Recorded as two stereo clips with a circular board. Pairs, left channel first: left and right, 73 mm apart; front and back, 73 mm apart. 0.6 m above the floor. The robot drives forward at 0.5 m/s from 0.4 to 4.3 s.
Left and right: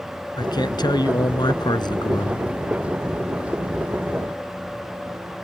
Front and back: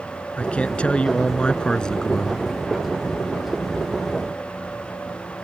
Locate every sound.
0.4 s a man speaking: 75° left; by 2.5 s 80° left